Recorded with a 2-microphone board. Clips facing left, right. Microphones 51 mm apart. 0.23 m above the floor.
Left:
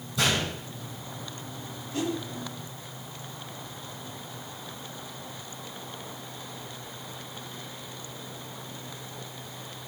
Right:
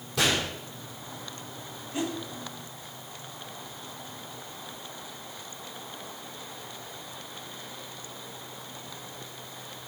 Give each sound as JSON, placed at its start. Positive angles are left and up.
{"t": 0.2, "sound": "a gunshot", "side_deg": -80, "distance_m": 3.5}
{"t": 1.9, "sound": "a whoosh", "side_deg": -20, "distance_m": 1.2}